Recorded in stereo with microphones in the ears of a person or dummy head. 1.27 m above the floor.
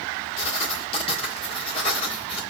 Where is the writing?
35° left (ahead or behind), 1.8 m.